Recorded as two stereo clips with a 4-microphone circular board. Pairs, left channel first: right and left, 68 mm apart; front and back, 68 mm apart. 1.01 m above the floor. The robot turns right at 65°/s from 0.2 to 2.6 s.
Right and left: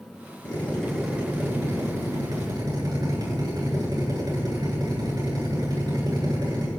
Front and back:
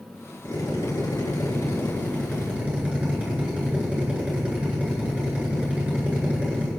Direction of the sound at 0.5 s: 30° right.